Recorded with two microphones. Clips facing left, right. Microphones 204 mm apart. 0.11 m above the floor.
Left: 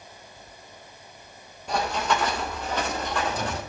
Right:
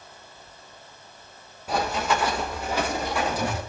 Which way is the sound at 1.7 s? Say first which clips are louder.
Right 1 dB; 5° right (ahead or behind).